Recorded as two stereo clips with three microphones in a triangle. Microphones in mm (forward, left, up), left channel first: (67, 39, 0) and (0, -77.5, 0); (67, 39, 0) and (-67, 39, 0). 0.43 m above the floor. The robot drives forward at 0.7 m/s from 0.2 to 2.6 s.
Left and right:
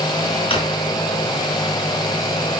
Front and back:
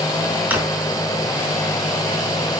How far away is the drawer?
About 3 m.